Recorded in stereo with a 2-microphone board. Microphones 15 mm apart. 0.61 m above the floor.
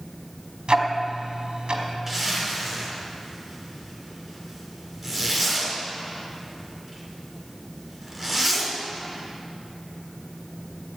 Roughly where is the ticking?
Right.